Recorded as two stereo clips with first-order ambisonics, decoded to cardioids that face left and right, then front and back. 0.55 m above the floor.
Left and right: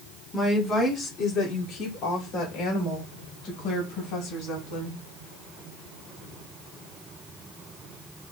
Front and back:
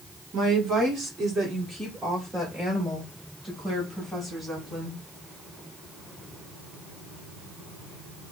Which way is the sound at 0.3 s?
160° left.